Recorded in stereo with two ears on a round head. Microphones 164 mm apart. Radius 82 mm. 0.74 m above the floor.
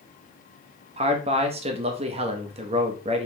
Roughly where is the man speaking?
Right.